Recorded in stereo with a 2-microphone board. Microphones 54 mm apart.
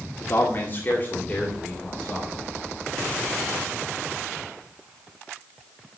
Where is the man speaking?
45° left (ahead or behind), 1.9 m; by 2.5 s 20° left (ahead or behind), 3 m.